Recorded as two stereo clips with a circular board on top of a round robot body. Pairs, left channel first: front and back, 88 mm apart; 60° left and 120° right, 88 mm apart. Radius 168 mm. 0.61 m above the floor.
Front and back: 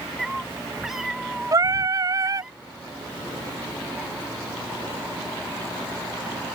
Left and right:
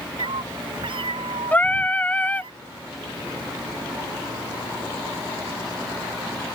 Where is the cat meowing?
95° right; by 2.5 s 100° right.